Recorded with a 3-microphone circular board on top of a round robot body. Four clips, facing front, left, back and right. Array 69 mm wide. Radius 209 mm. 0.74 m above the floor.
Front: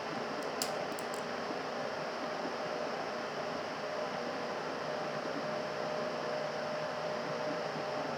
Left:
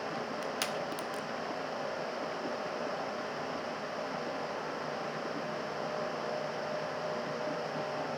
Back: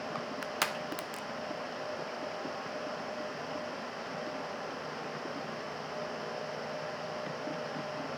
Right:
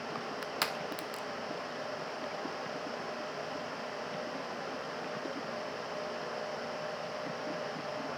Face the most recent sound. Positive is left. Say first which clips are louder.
# left 1 dB, back 4 dB
turn(degrees=-155)